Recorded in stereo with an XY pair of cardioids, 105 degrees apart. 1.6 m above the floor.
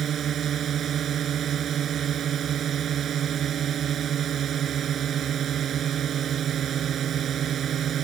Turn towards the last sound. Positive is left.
turn(degrees=-55)